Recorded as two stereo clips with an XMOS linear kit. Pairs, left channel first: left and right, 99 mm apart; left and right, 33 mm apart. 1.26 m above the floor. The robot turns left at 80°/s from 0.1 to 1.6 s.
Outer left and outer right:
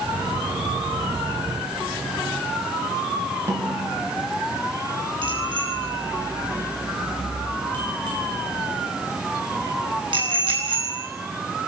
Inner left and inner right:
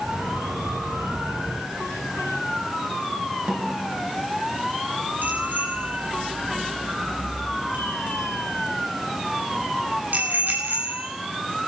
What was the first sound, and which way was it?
A snare drum, 30° right (ahead or behind).